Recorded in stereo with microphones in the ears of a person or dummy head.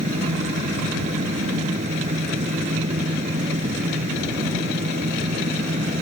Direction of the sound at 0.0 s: 45° right (ahead or behind).